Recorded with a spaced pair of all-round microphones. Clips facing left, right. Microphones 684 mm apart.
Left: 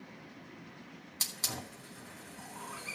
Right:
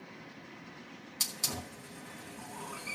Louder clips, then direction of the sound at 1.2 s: Right 2 dB; 55° right (ahead or behind).